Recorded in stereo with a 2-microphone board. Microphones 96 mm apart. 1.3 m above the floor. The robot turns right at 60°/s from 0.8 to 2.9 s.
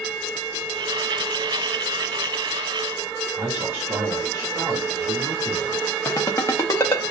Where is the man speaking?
30° right (ahead or behind), 2.5 m.